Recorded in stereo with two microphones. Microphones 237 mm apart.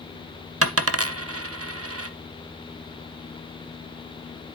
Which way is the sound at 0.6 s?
75° right (ahead or behind).